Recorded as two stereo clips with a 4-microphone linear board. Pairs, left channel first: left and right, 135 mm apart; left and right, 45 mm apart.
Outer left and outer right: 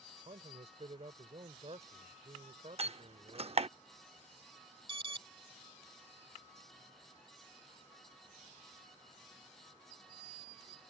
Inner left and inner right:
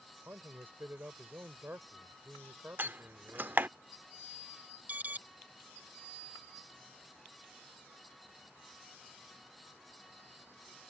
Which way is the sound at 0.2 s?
55° right (ahead or behind).